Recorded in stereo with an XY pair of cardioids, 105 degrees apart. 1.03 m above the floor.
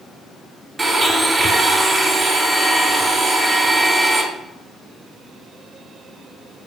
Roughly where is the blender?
Ahead right.